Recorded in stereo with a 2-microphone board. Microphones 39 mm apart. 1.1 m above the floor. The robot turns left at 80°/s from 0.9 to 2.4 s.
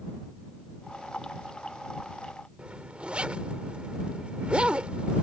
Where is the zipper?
35° right (ahead or behind).